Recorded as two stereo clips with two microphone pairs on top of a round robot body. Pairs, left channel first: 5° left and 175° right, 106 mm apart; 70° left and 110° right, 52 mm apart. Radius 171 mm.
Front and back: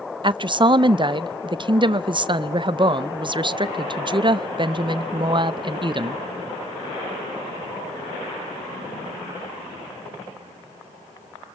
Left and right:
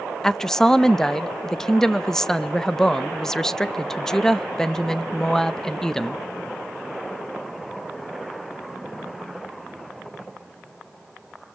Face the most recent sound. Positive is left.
turn(degrees=155)